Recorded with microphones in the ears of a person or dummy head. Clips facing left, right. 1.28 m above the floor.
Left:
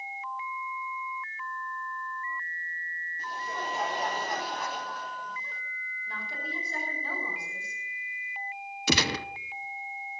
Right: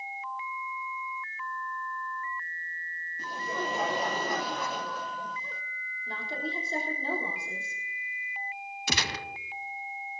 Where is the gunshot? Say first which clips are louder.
Left 7 dB; 60° left (ahead or behind), 0.7 m.